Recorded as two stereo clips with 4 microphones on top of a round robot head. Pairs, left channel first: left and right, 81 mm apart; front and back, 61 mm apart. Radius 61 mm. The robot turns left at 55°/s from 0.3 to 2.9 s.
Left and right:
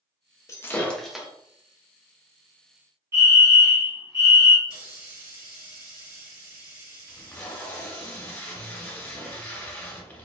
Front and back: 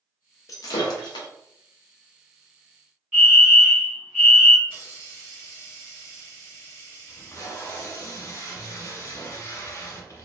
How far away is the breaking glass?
About 0.7 m.